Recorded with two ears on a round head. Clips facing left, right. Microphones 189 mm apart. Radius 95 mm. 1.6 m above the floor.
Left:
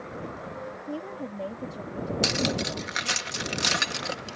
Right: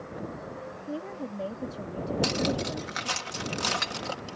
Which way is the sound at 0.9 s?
5° left (ahead or behind).